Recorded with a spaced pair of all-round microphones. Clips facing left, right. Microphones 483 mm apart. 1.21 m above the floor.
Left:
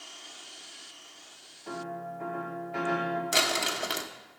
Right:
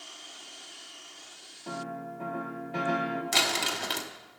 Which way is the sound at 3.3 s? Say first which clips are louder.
Left 1 dB; 15° right (ahead or behind).